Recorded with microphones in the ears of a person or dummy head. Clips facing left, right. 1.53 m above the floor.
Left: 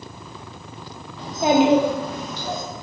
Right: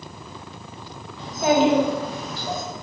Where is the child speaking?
40° left (ahead or behind), 0.7 m; by 2.6 s 5° right (ahead or behind), 2 m.